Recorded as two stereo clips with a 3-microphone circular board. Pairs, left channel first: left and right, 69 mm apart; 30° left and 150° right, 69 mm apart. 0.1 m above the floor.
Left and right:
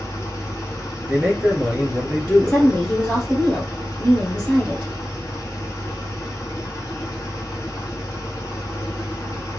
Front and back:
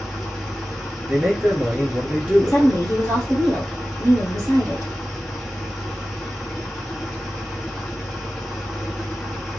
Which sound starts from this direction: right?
A man speaking, at 1.1 s.